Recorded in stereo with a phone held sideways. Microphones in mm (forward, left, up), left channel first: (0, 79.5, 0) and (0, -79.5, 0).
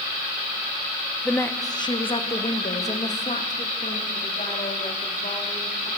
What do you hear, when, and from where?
1.2 s a woman speaking: 5° left (ahead or behind), 0.8 m; by 5.9 s 60° left (ahead or behind), 3.5 m